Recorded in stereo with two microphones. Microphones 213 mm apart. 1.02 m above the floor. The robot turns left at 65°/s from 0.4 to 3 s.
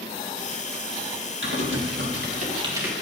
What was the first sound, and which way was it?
Typing on a keyboard, 60° right (ahead or behind).